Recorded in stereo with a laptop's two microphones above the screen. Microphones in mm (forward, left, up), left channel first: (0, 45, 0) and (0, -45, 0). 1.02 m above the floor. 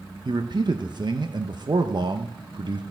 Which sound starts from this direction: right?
A man speaking, at 0.2 s.